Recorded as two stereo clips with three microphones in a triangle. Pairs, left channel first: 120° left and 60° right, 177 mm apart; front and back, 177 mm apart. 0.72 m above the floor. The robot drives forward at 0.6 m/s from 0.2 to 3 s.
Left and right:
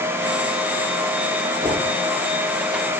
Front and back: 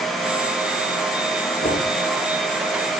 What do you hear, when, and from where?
1.6 s knocking: straight ahead, 9 m